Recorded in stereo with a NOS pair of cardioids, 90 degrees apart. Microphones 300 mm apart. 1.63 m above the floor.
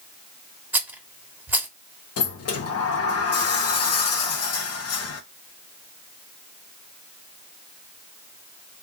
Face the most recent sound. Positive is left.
turn(degrees=55)